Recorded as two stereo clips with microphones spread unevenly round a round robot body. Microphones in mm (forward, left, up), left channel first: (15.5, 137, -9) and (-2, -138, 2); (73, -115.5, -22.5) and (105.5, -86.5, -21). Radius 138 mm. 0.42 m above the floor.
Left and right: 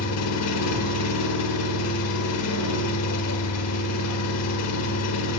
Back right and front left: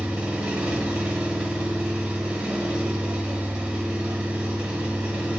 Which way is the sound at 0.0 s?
95° left.